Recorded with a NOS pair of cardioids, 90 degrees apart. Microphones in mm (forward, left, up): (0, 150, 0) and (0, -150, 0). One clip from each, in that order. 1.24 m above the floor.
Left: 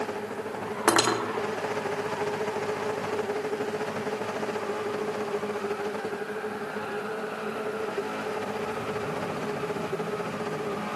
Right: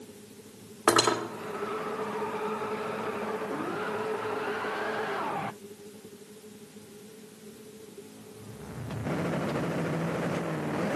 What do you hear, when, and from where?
0.9 s cutlery clinking: 10° left, 1.8 m